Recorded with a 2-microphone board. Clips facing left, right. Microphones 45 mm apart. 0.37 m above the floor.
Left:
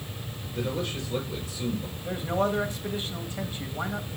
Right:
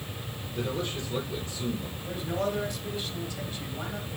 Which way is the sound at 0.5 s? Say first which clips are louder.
Left 1 dB; 10° left (ahead or behind).